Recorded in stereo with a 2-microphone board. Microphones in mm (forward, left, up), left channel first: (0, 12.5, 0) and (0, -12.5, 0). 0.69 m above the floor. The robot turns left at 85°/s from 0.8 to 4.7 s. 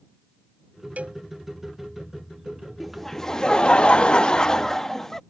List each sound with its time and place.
1.0 s a cowbell: 75° right (ahead or behind); by 1.2 s 55° right (ahead or behind)
2.8 s laughter: 175° right; by 5.2 s 25° left